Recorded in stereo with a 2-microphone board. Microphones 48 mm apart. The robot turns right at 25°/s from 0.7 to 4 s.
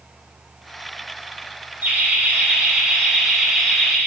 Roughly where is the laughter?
Ahead right.